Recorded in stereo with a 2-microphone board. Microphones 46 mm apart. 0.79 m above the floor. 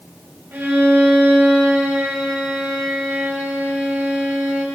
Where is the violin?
45° right (ahead or behind), 2.5 m.